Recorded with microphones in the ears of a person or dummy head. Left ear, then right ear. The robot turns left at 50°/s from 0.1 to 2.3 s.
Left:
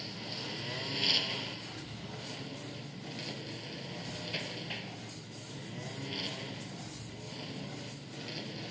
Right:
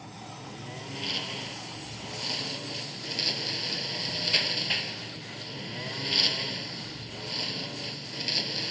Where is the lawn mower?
70° left; by 8.7 s 40° right.